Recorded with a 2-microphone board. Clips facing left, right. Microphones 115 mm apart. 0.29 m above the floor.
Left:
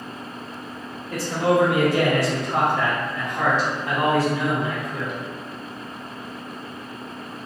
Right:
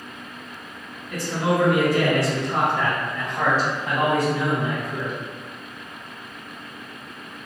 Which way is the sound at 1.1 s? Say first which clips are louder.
Left 3 dB; 35° left (ahead or behind).